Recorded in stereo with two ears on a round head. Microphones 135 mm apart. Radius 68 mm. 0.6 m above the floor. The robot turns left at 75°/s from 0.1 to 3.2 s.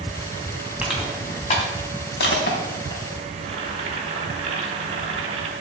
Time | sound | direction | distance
0.8 | crushing | 10° right (ahead or behind) | 3.5 m
3.4 | boiling | 40° right (ahead or behind) | 3.5 m